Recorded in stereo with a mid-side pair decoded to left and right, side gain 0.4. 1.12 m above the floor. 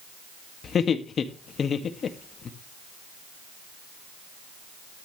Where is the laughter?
55° left, 1.9 m.